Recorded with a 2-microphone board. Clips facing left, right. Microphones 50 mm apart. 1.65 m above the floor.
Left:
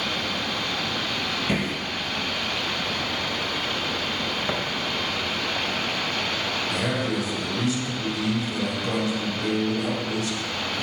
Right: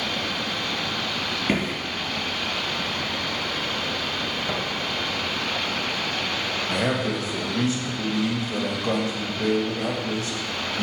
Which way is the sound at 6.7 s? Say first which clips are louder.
Right 3 dB; 35° right (ahead or behind).